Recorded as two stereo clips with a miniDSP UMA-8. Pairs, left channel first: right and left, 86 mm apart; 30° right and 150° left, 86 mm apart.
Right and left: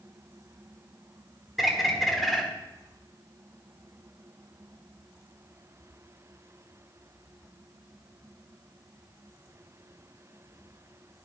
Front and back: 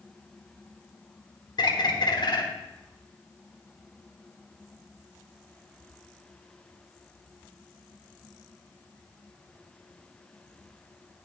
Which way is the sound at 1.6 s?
Straight ahead.